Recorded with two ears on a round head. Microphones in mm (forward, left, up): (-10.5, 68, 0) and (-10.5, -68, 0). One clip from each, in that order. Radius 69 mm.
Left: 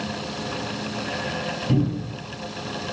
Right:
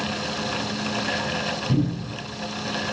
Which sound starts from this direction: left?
A cupboard door, at 1.7 s.